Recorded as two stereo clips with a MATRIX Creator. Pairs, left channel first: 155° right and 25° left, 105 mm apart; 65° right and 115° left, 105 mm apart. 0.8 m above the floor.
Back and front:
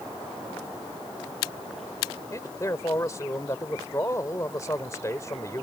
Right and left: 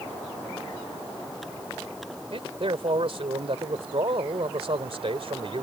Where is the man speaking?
140° left.